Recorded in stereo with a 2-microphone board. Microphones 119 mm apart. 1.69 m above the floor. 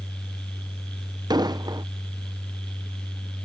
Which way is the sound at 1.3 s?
35° right (ahead or behind).